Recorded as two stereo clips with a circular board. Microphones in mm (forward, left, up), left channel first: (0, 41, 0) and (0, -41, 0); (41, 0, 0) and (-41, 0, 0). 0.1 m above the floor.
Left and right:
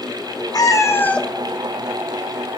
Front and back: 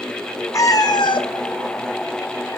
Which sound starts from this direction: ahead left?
A cat meowing, at 0.5 s.